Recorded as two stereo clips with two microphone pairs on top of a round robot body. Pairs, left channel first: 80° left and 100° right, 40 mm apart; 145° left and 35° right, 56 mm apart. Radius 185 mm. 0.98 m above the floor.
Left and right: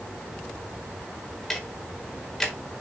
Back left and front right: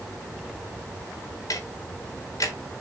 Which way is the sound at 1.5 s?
165° left.